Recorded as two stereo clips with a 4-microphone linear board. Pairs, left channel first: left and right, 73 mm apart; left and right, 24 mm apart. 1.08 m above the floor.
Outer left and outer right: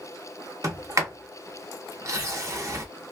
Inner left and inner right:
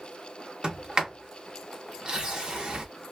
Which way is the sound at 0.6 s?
40° right (ahead or behind).